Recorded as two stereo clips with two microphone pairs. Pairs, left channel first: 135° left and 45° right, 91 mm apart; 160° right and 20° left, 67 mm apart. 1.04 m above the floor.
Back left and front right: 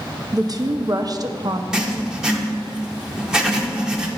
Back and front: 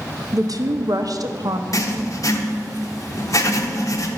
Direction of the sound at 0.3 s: 5° right.